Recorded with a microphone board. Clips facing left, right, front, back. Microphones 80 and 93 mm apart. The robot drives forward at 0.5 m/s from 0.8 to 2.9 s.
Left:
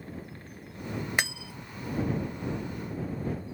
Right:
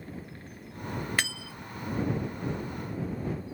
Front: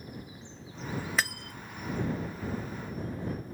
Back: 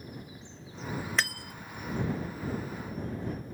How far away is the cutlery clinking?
About 0.6 m.